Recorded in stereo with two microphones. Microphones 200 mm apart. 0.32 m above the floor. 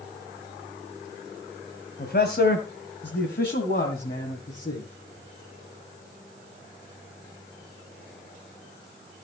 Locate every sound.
2.0 s a man speaking: 55° left (ahead or behind), 2.0 m; by 4.9 s 50° left (ahead or behind), 3 m